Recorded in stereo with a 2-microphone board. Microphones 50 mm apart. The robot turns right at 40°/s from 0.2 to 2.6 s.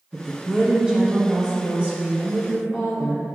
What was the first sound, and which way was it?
A woman speaking, 10° right (ahead or behind).